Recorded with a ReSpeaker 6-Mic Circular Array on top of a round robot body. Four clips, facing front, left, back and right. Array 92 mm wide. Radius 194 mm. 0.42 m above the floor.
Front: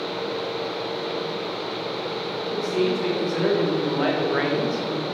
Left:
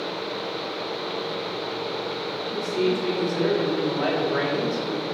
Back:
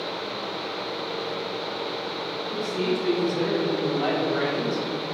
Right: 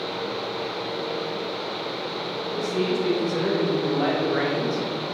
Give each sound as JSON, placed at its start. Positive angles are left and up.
{"t": 2.5, "sound": "a man speaking", "azimuth_deg": -10, "distance_m": 3.5}